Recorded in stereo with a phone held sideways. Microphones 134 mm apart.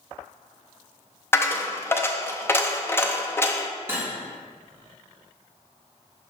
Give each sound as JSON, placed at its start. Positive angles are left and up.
{"t": 1.3, "sound": "a dropped coin", "side_deg": 20, "distance_m": 0.5}
{"t": 3.9, "sound": "cutlery clinking", "side_deg": -20, "distance_m": 1.5}